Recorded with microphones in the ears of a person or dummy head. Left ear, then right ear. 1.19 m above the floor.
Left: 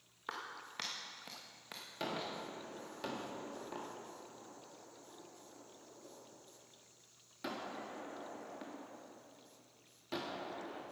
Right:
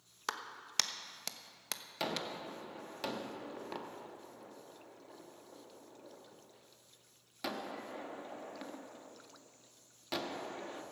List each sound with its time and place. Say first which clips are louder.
0.3 s a clap: right 3 dB; 85° right, 1.0 m
2.0 s a gunshot: right 2 dB; 25° right (ahead or behind), 1.2 m